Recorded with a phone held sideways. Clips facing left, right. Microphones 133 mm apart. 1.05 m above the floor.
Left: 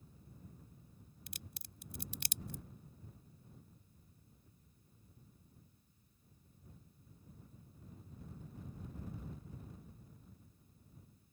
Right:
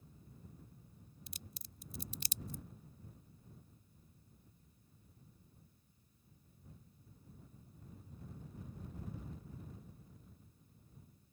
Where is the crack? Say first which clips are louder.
Left 2 dB; 70° left (ahead or behind).